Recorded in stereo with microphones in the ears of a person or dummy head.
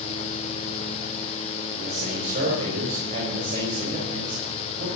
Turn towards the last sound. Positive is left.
turn(degrees=-45)  # may be behind; listen again after turning